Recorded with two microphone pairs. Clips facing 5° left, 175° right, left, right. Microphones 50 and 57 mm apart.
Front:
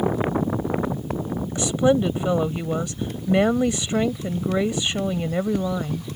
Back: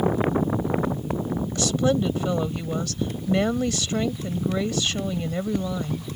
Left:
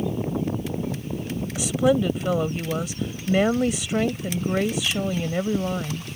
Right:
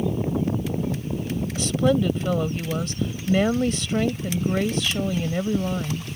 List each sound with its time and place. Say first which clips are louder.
1.6 s a woman speaking: front 4 dB, left 1 dB; 25° left